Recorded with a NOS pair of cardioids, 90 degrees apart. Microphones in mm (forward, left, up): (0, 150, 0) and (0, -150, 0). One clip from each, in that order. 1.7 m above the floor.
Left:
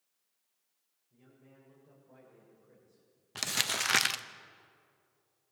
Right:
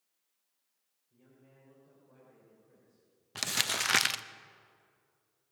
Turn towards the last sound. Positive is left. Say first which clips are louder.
# even
turn(degrees=-5)